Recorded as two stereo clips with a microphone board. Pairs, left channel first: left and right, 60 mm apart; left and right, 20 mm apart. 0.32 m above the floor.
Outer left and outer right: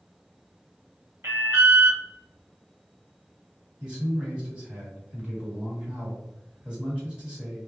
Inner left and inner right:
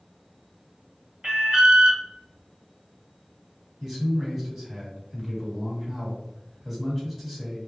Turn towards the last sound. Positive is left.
turn(degrees=-15)  # may be behind; listen again after turning